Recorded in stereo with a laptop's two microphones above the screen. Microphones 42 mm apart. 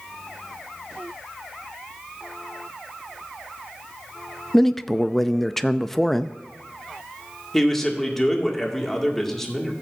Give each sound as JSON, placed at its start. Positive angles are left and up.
{"t": 4.5, "sound": "a man speaking", "side_deg": 5, "distance_m": 0.5}
{"t": 7.5, "sound": "a man speaking", "side_deg": 10, "distance_m": 2.0}